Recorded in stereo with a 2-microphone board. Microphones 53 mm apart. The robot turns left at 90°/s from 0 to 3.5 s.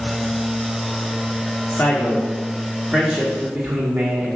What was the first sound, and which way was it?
A man speaking, 95° left.